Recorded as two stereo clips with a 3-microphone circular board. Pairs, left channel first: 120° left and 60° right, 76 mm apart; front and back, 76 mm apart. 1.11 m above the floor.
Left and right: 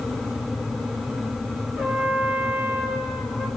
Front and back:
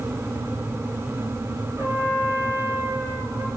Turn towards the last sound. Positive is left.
turn(degrees=-140)